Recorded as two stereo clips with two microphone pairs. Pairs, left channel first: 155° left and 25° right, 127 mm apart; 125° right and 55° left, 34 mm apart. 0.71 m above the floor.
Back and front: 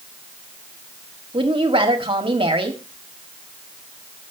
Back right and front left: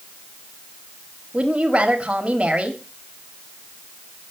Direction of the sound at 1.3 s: 10° left.